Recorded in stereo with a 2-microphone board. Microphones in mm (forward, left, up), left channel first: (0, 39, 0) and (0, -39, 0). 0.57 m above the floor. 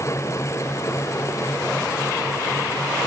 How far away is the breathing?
No breathing in this recording.